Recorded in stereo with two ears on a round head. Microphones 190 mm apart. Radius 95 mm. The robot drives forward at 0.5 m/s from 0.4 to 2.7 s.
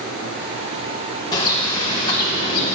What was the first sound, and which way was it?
A bird, 20° left (ahead or behind).